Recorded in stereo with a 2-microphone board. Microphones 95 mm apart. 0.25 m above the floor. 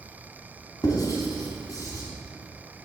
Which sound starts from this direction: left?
Writing, at 0.8 s.